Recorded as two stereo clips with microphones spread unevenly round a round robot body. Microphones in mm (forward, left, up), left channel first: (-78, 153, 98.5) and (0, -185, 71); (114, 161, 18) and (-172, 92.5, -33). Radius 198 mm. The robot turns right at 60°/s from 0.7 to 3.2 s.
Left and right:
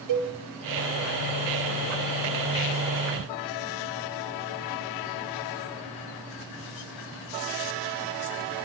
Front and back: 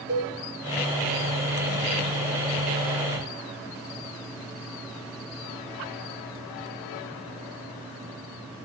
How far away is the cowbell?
About 1.6 m.